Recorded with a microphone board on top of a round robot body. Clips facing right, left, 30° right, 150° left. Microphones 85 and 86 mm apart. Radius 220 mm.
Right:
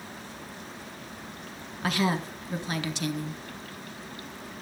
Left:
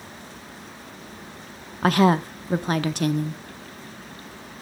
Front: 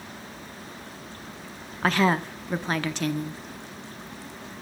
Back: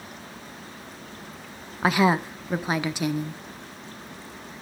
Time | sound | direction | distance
1.8 | a woman speaking | 75° left | 0.9 m